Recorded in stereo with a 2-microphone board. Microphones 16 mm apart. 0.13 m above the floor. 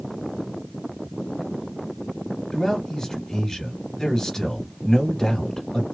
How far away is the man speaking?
About 2 m.